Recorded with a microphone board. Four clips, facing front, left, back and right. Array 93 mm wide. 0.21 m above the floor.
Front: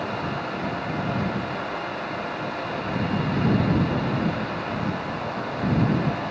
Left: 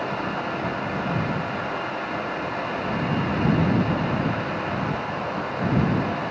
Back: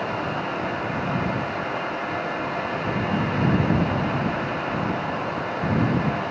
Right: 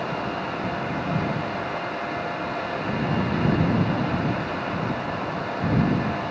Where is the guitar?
I don't hear a guitar.